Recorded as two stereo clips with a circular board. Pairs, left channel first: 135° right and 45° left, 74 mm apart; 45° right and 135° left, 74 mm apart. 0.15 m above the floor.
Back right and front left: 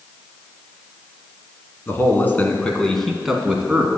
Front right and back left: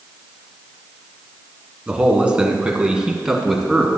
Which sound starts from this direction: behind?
A man speaking, at 1.9 s.